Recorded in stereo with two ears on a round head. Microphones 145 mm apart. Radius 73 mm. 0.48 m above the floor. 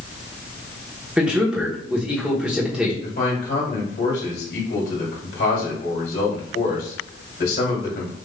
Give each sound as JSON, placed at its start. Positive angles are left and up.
{"t": 1.2, "sound": "a man speaking", "side_deg": -5, "distance_m": 1.1}
{"t": 3.0, "sound": "a man speaking", "side_deg": 65, "distance_m": 2.0}